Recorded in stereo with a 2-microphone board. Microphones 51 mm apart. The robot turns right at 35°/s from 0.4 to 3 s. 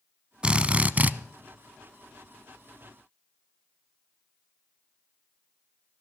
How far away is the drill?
About 0.6 m.